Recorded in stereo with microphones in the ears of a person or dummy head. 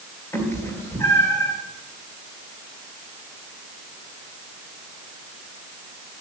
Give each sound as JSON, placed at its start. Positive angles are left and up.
{"t": 0.3, "sound": "a cat meowing", "side_deg": 15, "distance_m": 2.5}